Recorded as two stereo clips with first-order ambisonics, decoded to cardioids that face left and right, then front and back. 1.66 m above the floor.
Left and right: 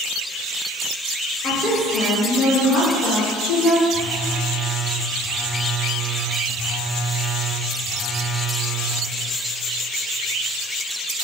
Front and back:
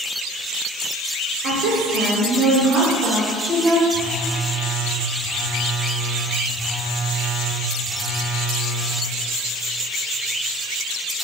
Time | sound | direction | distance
1.4 | a woman speaking | 170° left | 0.7 m
3.9 | a phone buzzing | 165° right | 0.6 m